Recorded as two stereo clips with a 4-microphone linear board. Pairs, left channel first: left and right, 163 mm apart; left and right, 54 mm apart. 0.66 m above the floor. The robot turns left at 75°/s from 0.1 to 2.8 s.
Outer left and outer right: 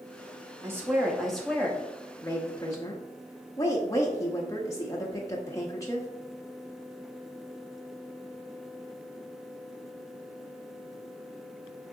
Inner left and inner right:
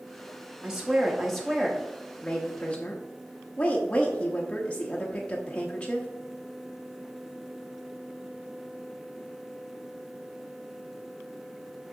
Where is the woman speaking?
15° right (ahead or behind), 1.0 m; by 6.1 s 20° left (ahead or behind), 1.0 m.